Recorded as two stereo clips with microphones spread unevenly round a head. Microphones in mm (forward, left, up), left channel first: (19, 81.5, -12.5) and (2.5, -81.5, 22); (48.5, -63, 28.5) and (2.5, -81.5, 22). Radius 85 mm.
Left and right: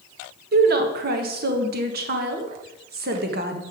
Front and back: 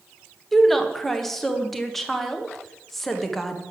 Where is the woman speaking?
65° right, 1.4 m.